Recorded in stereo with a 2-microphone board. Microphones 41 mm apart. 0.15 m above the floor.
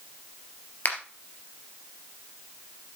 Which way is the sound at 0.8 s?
40° left (ahead or behind).